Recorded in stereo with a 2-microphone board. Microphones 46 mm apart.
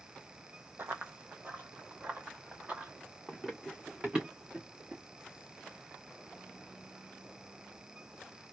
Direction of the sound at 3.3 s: 5° right (ahead or behind).